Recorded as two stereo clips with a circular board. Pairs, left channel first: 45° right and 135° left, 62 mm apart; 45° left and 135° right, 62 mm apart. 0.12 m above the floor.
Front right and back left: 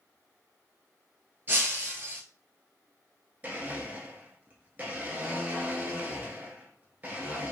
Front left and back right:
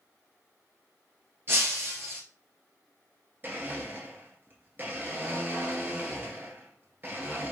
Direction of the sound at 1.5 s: 175° right.